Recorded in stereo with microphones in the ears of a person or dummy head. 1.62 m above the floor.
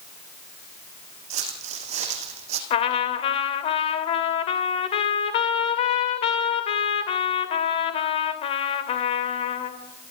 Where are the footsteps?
45° right (ahead or behind), 5 m; by 2.6 s 40° right (ahead or behind), 4 m.